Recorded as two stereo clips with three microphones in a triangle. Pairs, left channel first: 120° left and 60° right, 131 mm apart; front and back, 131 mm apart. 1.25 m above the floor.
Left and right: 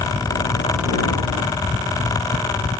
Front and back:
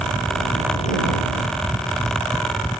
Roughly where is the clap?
I don't hear a clap.